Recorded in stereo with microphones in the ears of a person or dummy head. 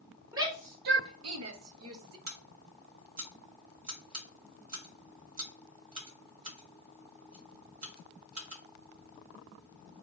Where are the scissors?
40° right (ahead or behind), 1.4 m.